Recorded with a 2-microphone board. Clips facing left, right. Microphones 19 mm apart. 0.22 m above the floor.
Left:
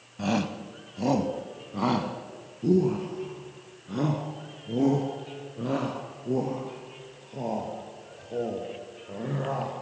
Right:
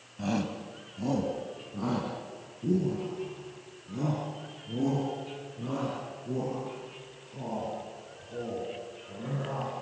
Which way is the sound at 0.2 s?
20° left (ahead or behind).